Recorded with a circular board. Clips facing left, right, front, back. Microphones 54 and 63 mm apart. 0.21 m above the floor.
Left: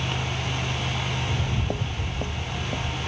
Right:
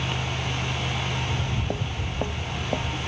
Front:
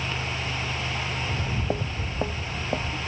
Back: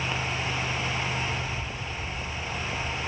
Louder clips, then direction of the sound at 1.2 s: Even, front 3 dB; 35° left.